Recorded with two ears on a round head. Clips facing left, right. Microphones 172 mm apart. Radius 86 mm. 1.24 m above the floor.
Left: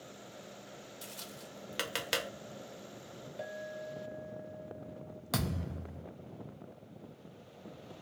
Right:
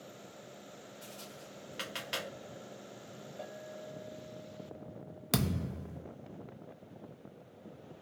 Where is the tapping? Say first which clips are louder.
Even; 60° left (ahead or behind), 0.9 m.